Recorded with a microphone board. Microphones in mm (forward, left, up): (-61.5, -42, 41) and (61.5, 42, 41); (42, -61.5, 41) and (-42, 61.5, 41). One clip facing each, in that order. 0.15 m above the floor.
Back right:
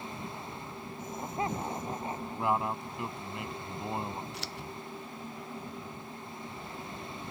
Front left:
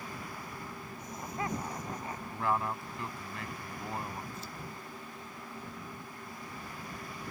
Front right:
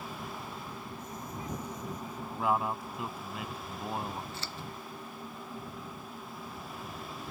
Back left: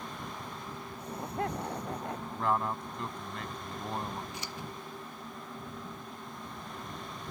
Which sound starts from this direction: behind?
Scissors, at 4.3 s.